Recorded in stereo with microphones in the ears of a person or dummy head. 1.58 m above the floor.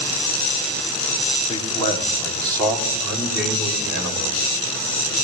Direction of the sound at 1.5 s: 30° left (ahead or behind).